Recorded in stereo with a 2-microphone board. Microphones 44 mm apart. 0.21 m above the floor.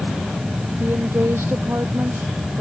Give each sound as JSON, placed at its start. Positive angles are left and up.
{"t": 0.8, "sound": "a woman speaking", "side_deg": -60}